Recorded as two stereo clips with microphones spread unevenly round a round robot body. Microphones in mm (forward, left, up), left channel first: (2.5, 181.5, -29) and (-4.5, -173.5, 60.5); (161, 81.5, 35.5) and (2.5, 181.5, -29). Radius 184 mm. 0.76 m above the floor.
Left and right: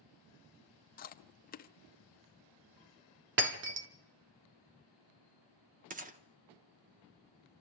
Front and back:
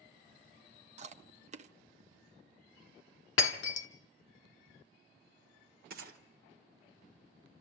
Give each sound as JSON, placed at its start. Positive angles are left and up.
{"t": 1.0, "sound": "chewing", "azimuth_deg": 135, "distance_m": 0.8}
{"t": 3.4, "sound": "breaking glass", "azimuth_deg": -30, "distance_m": 1.2}
{"t": 5.9, "sound": "a gunshot", "azimuth_deg": -160, "distance_m": 0.9}